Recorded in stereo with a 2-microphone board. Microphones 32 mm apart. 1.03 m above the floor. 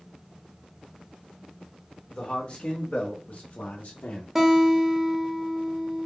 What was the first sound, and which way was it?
A man speaking, 30° left (ahead or behind).